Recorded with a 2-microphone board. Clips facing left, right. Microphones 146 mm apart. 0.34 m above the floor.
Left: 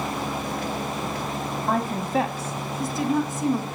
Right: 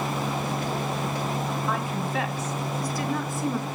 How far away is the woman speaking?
About 2.5 m.